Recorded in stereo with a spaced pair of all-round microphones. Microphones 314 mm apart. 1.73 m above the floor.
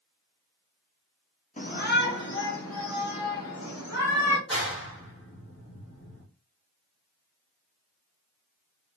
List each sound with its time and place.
1.6 s a shout: 25° left (ahead or behind), 0.7 m; by 4.4 s 55° left (ahead or behind), 2 m
4.5 s a clap: 45° left (ahead or behind), 1.0 m